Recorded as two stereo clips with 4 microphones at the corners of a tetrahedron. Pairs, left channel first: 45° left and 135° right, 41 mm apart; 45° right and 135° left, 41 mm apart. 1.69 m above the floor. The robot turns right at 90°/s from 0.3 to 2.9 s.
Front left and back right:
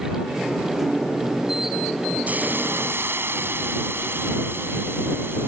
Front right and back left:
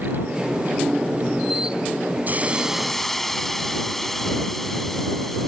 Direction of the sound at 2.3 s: 175° left.